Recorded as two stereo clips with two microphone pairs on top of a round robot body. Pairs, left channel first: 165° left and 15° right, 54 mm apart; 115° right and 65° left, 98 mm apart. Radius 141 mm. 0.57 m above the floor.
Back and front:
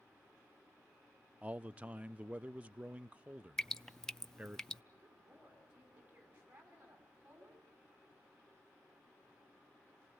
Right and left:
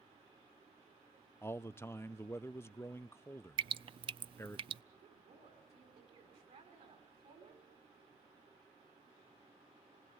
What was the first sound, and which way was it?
A man speaking, 65° right.